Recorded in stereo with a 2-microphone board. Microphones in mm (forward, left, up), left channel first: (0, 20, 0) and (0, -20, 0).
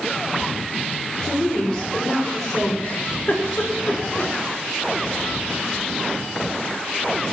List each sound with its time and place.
1.2 s a woman speaking: 30° left (ahead or behind), 5 m
2.8 s a giggle: 45° left (ahead or behind), 3 m